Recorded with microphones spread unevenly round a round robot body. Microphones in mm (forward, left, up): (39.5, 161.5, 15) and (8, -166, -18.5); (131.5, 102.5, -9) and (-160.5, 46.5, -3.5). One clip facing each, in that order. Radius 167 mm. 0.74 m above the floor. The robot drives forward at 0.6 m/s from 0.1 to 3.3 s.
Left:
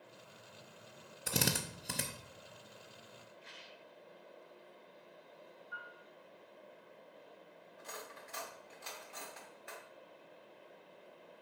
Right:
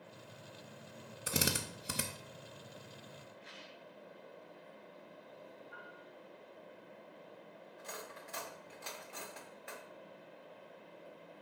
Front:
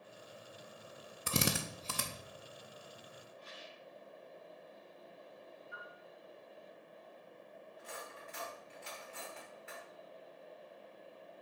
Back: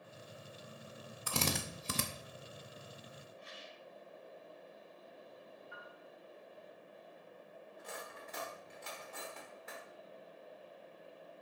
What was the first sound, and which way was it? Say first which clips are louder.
A drill: even, front 3 dB; 20° right.